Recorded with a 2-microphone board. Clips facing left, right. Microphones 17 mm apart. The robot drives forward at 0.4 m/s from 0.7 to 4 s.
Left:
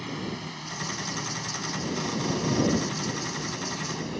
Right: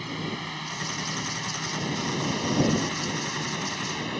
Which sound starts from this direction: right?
A drone, at 0.0 s.